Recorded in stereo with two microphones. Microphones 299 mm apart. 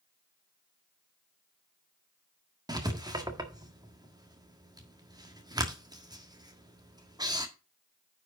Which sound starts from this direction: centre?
Writing, at 2.7 s.